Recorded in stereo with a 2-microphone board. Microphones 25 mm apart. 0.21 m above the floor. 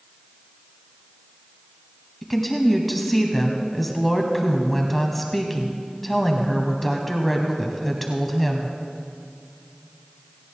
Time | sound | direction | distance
2.2 | a woman speaking | 5° left (ahead or behind) | 1.2 m